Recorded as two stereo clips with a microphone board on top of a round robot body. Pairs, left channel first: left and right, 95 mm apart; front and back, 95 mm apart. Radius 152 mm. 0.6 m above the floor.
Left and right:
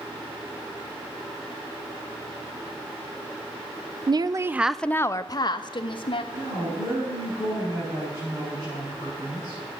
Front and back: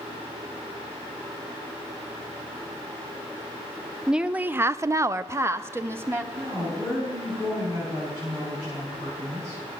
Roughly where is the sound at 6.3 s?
Behind right.